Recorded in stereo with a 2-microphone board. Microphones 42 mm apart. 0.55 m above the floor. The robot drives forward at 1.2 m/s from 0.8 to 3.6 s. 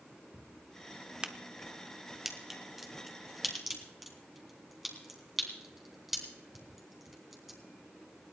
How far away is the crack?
About 0.9 m.